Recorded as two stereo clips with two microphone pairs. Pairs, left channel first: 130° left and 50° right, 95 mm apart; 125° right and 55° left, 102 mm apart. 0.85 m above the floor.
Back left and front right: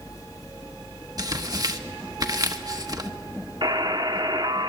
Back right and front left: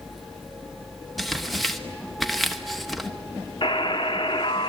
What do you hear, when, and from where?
1.2 s tearing paper: 35° right, 1.2 m
3.6 s a buzzer: 90° right, 0.9 m